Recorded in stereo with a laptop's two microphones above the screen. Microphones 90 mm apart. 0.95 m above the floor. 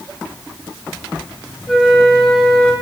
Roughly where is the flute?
Centre.